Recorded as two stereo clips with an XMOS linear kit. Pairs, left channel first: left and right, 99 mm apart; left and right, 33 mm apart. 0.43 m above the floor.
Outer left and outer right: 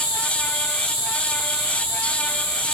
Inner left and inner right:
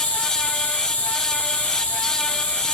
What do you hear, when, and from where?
0.0 s an insect: 60° left (ahead or behind), 6.5 m